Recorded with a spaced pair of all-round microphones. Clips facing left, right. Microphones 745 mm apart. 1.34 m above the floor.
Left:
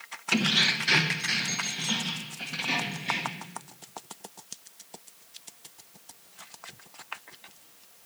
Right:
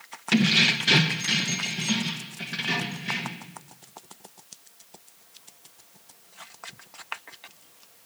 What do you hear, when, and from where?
0.3 s keys jangling: 50° right (ahead or behind), 0.7 m; by 3.5 s 45° right (ahead or behind), 1.8 m